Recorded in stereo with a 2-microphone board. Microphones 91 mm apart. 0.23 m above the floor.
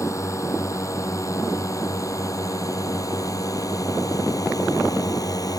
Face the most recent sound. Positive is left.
turn(degrees=40)  # may be behind; listen again after turning